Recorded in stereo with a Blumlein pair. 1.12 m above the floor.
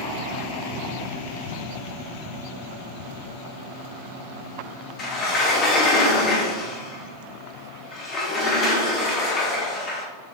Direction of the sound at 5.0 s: 30° left.